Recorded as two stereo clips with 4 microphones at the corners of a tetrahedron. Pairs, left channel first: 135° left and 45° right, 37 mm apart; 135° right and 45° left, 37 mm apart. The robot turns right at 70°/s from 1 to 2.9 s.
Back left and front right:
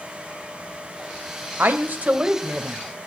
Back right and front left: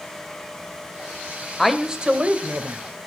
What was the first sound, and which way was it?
A woman speaking, 45° right.